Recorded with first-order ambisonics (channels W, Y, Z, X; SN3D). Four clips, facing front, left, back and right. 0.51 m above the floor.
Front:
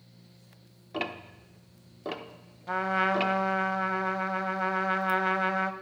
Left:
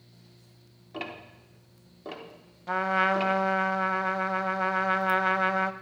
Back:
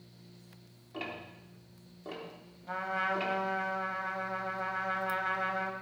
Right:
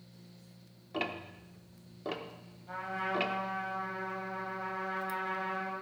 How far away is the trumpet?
About 0.6 m.